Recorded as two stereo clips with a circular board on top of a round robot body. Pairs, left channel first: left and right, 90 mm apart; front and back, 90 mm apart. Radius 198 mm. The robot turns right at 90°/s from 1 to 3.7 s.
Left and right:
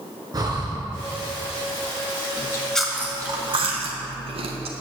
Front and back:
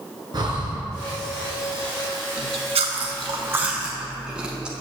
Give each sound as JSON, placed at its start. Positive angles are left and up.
{"t": 0.3, "sound": "breathing", "azimuth_deg": -135, "distance_m": 1.4}
{"t": 2.4, "sound": "chewing", "azimuth_deg": 140, "distance_m": 0.8}